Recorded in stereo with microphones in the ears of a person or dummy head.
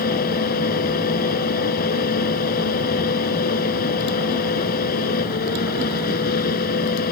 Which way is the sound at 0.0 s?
55° left (ahead or behind).